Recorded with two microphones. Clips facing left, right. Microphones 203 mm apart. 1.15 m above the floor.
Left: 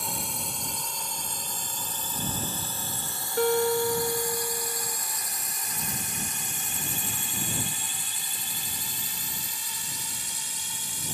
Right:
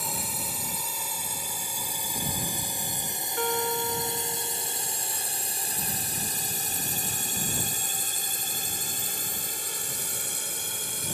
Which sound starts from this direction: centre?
A drone, at 0.0 s.